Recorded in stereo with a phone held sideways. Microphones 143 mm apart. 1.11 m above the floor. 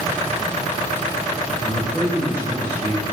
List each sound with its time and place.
1.6 s a man speaking: 15° right (ahead or behind), 0.8 m